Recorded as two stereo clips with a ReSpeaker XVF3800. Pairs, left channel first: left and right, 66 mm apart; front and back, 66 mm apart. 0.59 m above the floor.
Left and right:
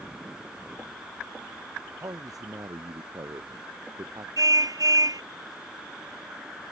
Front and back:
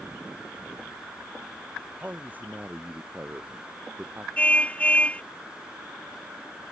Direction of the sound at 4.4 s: 70° right.